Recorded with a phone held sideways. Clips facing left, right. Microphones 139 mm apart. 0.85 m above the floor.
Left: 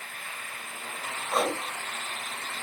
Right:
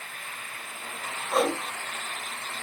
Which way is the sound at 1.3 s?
5° right (ahead or behind).